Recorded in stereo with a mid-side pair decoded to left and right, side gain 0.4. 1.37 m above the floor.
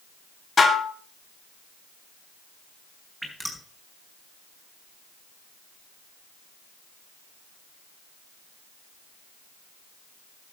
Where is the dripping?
Straight ahead, 5 m.